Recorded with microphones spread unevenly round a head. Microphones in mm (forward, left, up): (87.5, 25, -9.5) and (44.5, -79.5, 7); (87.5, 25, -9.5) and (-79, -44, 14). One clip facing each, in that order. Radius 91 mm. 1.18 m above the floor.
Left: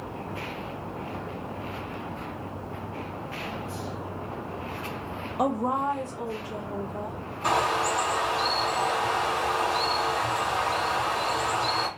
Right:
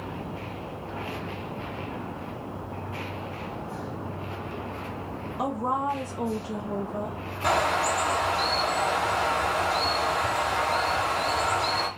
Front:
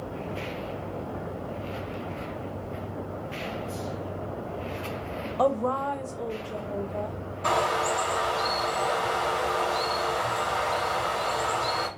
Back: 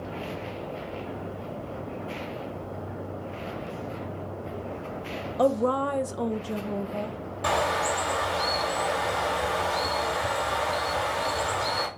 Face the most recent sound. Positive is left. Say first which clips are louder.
# right 1 dB, even
turn(degrees=-165)